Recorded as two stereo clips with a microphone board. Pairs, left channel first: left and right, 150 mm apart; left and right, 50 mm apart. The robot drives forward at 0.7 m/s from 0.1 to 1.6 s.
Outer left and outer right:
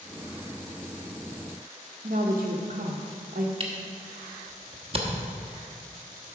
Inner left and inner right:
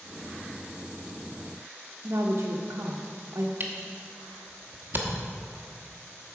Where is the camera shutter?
40° right (ahead or behind), 1.1 m.